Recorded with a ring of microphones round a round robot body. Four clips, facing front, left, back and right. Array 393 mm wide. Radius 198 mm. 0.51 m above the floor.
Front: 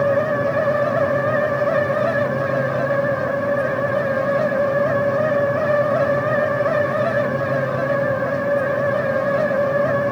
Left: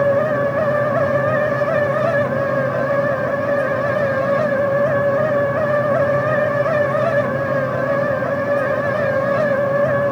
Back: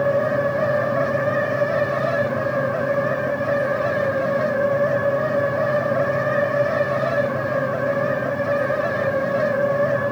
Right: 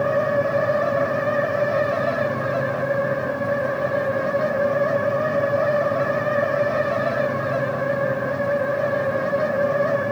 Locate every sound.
Only background noise.